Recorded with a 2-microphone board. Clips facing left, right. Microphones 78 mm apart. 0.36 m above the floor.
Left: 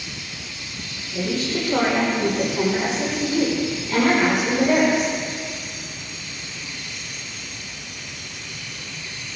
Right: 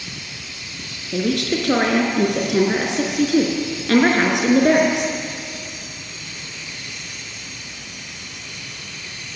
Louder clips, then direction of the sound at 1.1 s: Right 4 dB; 80° right.